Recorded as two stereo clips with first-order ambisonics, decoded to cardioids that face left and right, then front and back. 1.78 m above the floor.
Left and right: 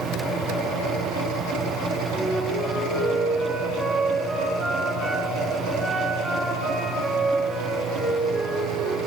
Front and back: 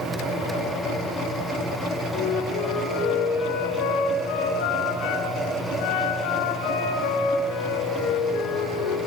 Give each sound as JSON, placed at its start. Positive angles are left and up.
{"t": 2.1, "sound": "a flute", "azimuth_deg": -5, "distance_m": 6.0}